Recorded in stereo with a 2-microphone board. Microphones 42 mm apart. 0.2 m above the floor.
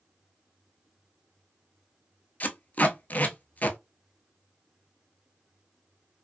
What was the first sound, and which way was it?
Tape being pulled, 40° left (ahead or behind).